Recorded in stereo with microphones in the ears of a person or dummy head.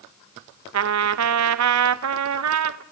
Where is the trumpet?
70° right (ahead or behind), 0.7 m.